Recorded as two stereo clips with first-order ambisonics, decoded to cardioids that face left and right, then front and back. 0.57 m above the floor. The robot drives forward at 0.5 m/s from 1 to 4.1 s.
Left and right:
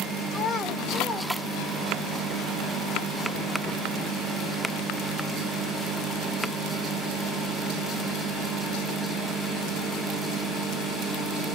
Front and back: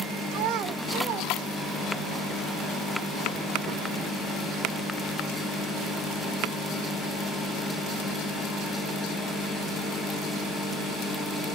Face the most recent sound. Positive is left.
turn(degrees=175)